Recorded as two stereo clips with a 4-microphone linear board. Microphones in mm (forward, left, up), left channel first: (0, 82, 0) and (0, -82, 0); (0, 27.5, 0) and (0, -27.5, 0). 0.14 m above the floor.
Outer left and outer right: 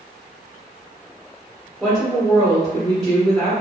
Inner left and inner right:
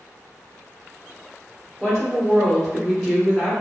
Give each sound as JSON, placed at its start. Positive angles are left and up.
{"t": 1.8, "sound": "a woman speaking", "side_deg": 0, "distance_m": 1.1}